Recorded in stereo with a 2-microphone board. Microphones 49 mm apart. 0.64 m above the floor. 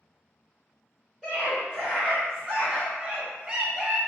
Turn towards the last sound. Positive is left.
turn(degrees=-15)  # may be behind; listen again after turning